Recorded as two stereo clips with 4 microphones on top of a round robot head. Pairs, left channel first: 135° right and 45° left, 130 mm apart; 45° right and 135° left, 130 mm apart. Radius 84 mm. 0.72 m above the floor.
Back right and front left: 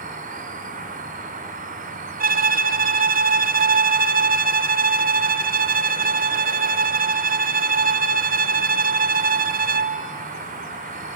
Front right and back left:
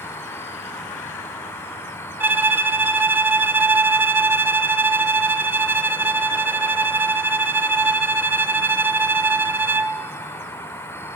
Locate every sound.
0.0 s an insect: 30° left, 2.5 m
2.2 s a violin: 60° left, 0.9 m